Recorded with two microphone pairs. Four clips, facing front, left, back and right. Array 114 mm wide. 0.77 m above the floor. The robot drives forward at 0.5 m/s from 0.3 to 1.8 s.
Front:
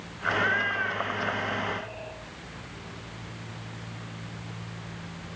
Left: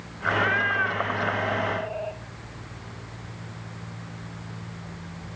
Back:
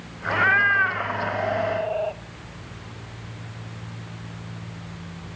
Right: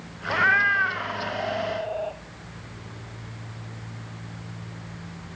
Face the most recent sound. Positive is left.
turn(degrees=-165)